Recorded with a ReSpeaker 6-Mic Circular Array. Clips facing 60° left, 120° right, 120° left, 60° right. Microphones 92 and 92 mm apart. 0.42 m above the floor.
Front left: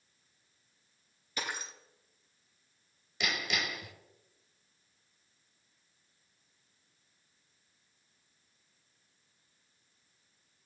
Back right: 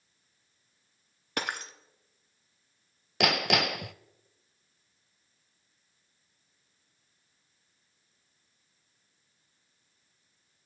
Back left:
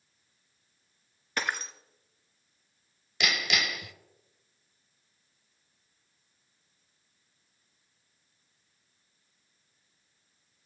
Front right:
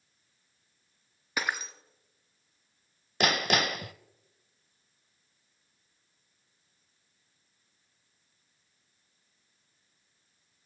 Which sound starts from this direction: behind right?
Breaking glass, at 1.4 s.